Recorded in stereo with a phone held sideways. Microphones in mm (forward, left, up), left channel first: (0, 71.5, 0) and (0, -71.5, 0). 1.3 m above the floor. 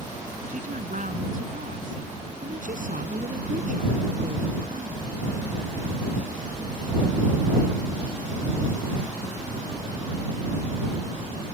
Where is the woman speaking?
70° right (ahead or behind).